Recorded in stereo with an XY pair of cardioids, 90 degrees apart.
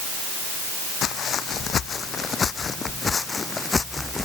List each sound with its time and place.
1.0 s footsteps: 70° left; by 4.2 s 20° left